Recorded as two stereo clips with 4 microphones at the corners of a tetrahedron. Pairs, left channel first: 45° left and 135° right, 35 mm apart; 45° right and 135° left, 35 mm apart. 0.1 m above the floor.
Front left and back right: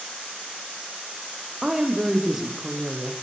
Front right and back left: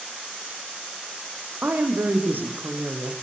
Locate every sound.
1.6 s a woman speaking: 145° left, 5 m